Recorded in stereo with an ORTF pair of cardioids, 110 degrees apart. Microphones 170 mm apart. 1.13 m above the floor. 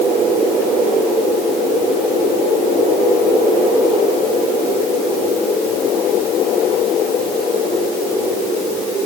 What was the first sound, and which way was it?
Only background noise.